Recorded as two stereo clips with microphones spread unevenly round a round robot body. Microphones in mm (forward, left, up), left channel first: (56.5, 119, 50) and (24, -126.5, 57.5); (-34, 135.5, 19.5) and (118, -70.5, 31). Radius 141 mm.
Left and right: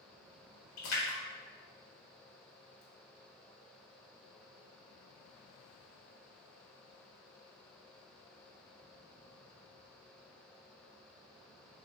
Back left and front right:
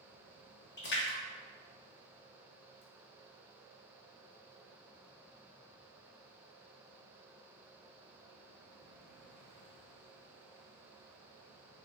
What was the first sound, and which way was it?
A splash, 85° left.